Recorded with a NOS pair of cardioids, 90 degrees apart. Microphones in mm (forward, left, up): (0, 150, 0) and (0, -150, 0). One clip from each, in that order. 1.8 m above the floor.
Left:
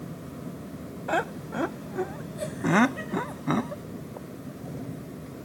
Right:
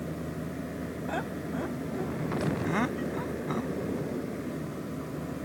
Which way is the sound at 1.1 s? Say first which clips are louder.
Left 8 dB; 55° left.